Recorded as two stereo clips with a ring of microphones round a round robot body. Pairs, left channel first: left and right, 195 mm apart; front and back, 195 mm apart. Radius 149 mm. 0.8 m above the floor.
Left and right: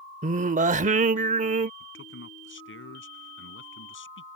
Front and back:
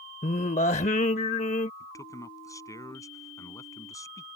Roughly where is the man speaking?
Left.